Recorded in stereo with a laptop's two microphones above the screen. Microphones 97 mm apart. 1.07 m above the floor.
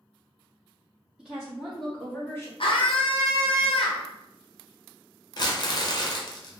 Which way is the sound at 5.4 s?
45° left (ahead or behind).